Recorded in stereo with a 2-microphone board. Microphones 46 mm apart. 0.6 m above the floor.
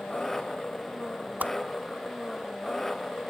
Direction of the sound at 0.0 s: 10° left (ahead or behind).